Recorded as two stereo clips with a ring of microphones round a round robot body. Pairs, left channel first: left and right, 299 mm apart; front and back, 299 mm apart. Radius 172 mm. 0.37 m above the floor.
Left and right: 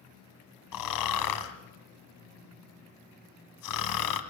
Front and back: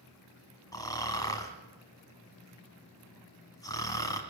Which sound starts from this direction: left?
Snoring, at 0.7 s.